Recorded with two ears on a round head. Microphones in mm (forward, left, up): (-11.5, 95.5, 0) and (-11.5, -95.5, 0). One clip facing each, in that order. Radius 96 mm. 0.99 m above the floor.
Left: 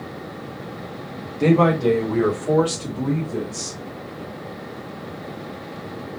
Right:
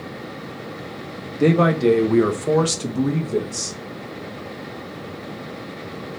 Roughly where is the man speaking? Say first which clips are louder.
Even; centre.